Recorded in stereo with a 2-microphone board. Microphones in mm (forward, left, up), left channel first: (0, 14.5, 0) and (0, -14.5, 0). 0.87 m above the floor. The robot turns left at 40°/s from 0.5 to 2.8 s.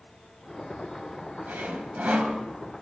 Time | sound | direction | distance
1.5 | sawing | 100° right | 3.5 m